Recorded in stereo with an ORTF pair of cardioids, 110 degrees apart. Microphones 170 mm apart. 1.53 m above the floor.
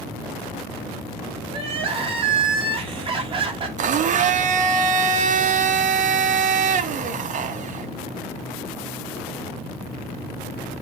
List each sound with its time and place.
1.5 s crying: 35° right, 2.5 m
3.8 s a blender: 50° right, 1.2 m